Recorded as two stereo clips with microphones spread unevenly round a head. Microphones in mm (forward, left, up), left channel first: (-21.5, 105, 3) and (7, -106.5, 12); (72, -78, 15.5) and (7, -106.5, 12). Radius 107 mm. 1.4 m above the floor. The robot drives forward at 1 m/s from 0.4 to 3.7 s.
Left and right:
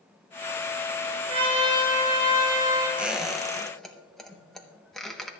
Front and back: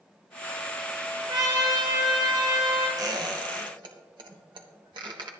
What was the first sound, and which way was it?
A trumpet, 145° right.